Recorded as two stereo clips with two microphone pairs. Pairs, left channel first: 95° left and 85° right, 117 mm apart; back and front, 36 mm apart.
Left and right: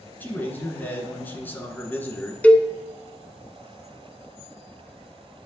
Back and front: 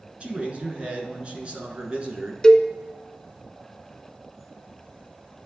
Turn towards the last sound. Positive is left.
turn(degrees=140)